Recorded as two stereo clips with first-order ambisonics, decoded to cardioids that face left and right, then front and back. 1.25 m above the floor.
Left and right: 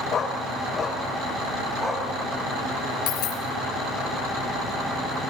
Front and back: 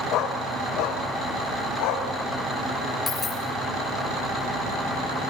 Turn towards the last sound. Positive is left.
turn(degrees=70)